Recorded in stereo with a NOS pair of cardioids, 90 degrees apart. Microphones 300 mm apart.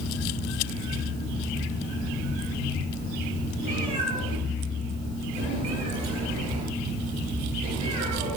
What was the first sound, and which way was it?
A cat meowing, 70° right.